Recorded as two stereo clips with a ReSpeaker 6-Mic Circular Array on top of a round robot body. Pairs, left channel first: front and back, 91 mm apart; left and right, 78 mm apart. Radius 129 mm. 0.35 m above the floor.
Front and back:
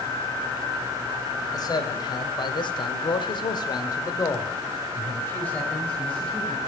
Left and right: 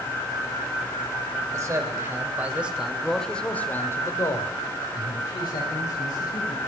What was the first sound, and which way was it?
A man speaking, 40° right.